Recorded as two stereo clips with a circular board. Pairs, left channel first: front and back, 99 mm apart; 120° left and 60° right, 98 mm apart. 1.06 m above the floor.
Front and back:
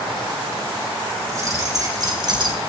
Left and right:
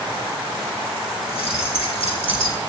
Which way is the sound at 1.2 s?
120° left.